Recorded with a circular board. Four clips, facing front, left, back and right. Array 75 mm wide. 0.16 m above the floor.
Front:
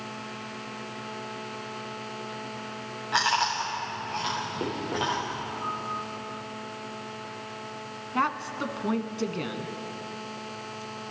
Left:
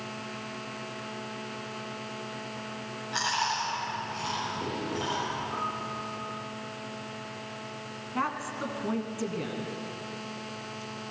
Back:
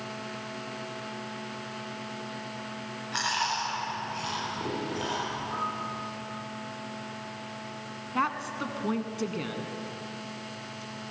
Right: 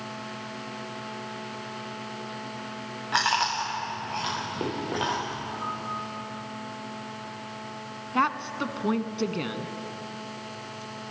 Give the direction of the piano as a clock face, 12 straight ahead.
7 o'clock.